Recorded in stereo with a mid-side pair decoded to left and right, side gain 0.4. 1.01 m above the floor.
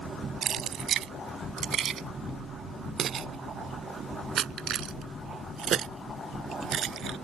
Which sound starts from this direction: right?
Keys jangling, at 0.4 s.